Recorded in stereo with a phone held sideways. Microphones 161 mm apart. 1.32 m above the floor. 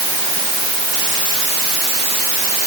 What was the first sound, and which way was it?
Only background noise.